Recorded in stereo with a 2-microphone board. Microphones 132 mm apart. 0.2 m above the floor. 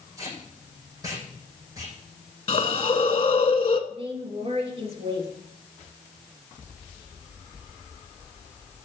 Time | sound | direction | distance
0.2 | tape being pulled | 25° right (ahead or behind) | 6.5 m
2.5 | a hiss | 50° left (ahead or behind) | 0.9 m
3.9 | a woman speaking | 50° right (ahead or behind) | 3 m